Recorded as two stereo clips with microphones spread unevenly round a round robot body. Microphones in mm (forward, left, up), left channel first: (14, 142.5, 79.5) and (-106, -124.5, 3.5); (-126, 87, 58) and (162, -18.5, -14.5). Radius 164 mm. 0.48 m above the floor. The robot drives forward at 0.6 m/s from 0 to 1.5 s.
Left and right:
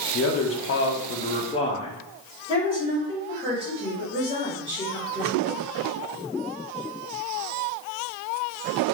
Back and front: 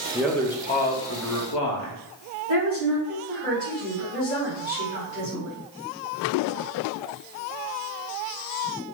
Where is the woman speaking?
175° right, 2 m.